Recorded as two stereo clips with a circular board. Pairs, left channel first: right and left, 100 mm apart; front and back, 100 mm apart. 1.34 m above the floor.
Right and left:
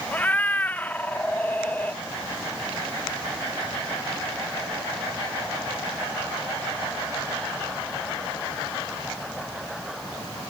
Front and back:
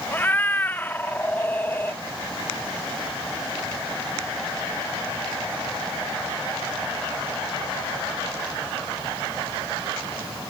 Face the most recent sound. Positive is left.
turn(degrees=-40)